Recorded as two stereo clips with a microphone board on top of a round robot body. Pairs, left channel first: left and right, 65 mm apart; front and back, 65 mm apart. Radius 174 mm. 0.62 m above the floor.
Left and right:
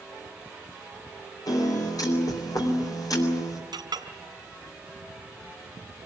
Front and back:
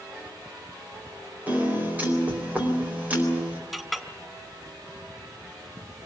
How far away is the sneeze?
I don't hear a sneeze.